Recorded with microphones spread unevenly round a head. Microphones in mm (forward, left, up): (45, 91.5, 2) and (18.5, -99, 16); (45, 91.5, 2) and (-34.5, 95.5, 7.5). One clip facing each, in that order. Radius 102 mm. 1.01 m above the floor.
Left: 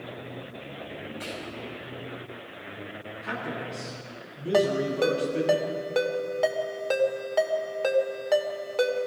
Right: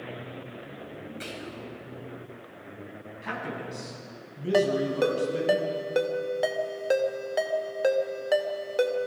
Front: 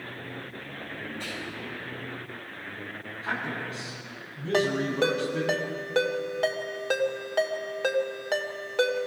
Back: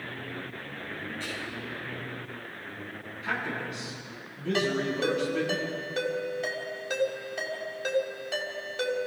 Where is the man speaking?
75° right, 9 m.